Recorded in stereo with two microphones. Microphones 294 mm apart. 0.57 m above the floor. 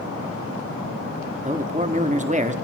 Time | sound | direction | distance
1.4 | a man speaking | 25° right (ahead or behind) | 0.9 m